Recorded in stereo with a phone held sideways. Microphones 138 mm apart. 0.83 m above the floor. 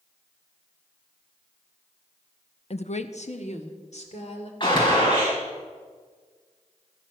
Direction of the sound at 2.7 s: 55° left (ahead or behind).